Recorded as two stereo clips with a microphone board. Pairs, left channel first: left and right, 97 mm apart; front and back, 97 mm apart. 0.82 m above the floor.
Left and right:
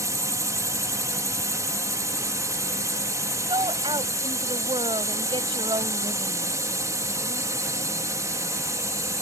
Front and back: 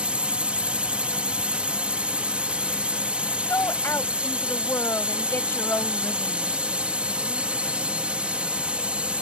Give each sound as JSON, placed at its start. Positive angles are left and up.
{"t": 0.0, "sound": "a drone", "azimuth_deg": -110}
{"t": 3.5, "sound": "a woman speaking", "azimuth_deg": -60}